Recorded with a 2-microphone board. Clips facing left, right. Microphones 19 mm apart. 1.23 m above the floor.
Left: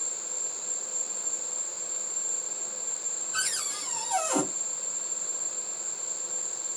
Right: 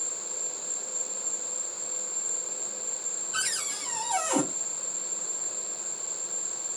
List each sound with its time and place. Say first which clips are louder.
0.0 s an insect: even; 20° left (ahead or behind), 2.5 m
3.3 s a cupboard door: even; 5° right (ahead or behind), 2.5 m